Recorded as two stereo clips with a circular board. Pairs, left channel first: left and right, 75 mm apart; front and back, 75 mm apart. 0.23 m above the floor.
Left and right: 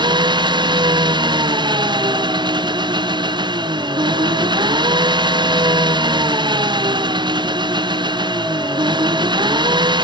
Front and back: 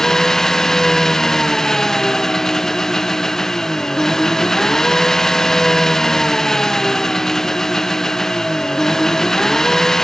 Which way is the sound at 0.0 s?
85° right.